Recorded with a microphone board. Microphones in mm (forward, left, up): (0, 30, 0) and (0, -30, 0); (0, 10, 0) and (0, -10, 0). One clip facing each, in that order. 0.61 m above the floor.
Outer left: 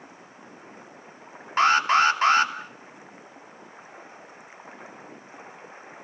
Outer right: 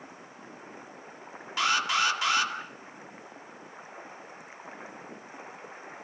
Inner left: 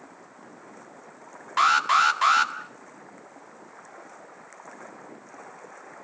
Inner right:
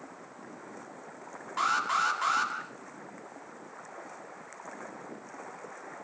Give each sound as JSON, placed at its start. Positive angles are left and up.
{"t": 1.6, "sound": "an alarm", "side_deg": 40, "distance_m": 2.5}